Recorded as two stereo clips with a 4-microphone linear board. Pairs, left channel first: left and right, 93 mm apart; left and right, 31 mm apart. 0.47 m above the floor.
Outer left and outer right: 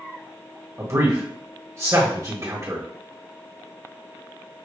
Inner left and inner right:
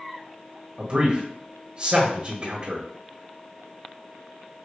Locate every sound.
0.8 s a man speaking: 35° right (ahead or behind), 1.6 m